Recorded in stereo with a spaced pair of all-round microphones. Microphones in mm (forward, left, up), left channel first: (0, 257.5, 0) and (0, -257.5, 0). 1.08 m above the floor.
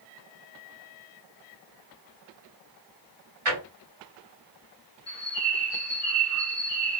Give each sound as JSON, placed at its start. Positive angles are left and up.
{"t": 3.5, "sound": "a drawer", "side_deg": -70, "distance_m": 2.0}
{"t": 5.1, "sound": "a bird", "side_deg": -10, "distance_m": 1.5}